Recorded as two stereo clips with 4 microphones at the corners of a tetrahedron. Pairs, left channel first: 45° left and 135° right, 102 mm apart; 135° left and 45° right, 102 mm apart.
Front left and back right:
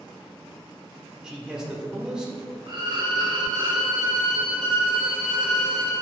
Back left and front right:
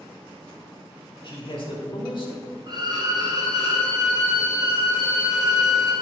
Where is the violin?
90° right, 2.5 m.